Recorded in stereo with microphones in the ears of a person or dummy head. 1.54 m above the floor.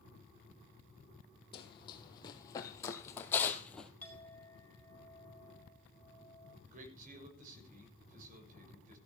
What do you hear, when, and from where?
1.5 s running footsteps: 35° left (ahead or behind), 3 m; by 3.9 s 10° left (ahead or behind), 2.5 m
4.0 s a clink: 5° left (ahead or behind), 5 m
6.7 s a man speaking: 45° right (ahead or behind), 6.5 m